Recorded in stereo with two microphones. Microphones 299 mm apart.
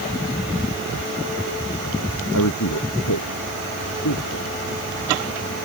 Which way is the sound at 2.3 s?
80° left.